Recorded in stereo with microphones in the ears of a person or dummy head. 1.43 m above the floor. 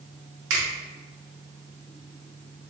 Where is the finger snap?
65° right (ahead or behind), 1.3 m.